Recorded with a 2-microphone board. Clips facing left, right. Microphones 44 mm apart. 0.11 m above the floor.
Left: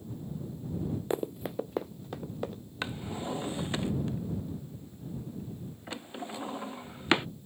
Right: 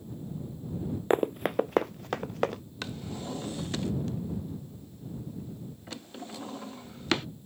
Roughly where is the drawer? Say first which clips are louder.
Left 3 dB; left.